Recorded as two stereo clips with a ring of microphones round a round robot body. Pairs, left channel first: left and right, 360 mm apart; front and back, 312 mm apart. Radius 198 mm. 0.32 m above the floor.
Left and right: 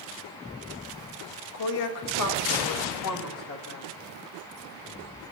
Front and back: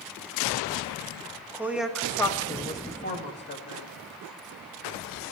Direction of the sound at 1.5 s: 100° left.